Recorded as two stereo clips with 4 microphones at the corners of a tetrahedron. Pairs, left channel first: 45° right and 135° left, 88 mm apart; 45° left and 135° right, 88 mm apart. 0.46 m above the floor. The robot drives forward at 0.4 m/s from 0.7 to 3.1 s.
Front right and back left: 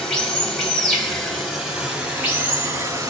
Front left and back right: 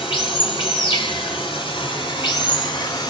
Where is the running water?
40° left, 1.4 m; by 3.1 s 85° left, 0.9 m.